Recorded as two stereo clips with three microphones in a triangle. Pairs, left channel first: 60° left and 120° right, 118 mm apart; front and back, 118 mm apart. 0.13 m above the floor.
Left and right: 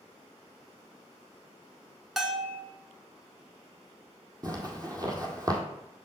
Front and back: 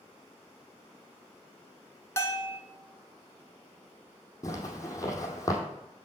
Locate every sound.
2.2 s a bell: 35° right, 0.9 m
4.4 s a zipper: 60° right, 1.5 m